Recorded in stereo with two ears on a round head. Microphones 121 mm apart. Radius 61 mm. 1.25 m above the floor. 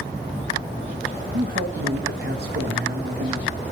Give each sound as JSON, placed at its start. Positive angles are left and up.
{"t": 1.3, "sound": "a man speaking", "side_deg": -60, "distance_m": 1.5}